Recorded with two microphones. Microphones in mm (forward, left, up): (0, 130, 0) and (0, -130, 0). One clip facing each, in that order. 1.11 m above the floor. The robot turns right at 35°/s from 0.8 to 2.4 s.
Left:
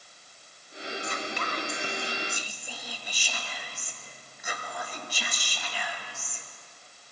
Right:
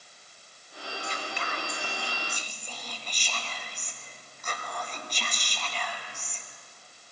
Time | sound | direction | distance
1.0 | whispering | 125° left | 1.1 m